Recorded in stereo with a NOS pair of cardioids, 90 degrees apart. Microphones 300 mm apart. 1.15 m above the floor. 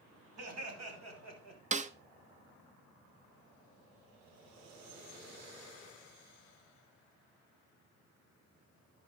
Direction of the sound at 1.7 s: 25° right.